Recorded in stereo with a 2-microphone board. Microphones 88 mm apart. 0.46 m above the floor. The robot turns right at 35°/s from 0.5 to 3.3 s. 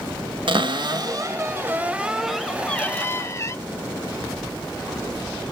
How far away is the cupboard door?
About 0.6 m.